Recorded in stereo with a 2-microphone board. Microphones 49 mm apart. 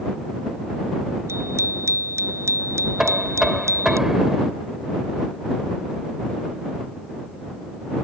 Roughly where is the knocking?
Centre.